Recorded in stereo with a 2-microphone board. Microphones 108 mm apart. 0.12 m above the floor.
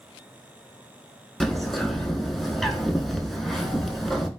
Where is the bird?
Centre (ahead or behind), 0.6 m.